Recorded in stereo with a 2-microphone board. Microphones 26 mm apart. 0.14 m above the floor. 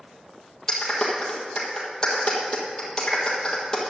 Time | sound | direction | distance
0.7 | a clap | 25° left (ahead or behind) | 3.5 m